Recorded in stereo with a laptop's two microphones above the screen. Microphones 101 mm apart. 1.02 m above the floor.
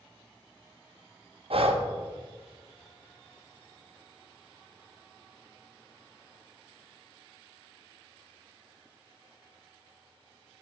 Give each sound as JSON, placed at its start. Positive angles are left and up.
{"t": 1.5, "sound": "breathing", "side_deg": -65, "distance_m": 0.6}